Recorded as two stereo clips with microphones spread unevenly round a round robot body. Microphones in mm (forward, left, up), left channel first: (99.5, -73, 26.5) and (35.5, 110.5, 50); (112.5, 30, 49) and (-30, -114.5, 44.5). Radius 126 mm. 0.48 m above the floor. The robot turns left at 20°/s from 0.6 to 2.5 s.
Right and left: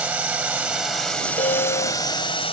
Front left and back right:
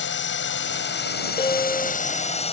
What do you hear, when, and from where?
0.0 s a drone: 25° left; by 2.5 s 10° right
1.4 s a piano: 20° right; by 2.0 s 30° right